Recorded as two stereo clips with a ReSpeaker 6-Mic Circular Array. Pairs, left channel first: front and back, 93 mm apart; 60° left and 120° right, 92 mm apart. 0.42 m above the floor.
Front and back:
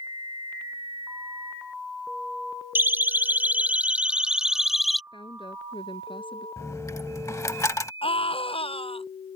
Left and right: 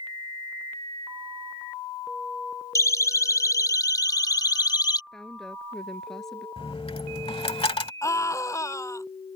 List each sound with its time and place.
2.8 s a siren: 115° left; by 5.0 s 90° left
5.1 s a woman speaking: 25° right
6.6 s a dropped coin: 55° left
8.0 s a scream: 5° left